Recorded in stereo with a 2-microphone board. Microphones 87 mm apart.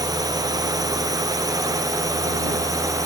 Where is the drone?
45° right (ahead or behind); by 3.1 s 40° right (ahead or behind).